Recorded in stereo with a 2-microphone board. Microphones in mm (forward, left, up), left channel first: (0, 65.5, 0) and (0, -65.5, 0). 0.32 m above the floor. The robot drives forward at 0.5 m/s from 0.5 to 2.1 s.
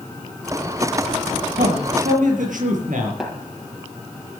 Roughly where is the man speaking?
Right.